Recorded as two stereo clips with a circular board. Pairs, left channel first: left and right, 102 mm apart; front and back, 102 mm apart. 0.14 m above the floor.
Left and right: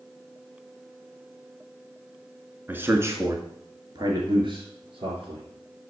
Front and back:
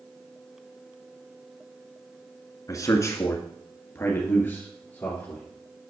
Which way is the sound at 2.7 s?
30° right.